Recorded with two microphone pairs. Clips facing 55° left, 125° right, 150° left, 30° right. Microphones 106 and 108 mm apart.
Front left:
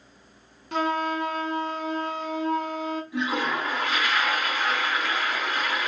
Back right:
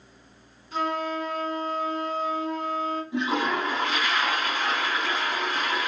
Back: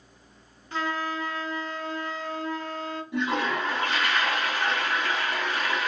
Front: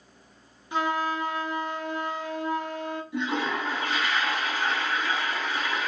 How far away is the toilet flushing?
About 1.7 m.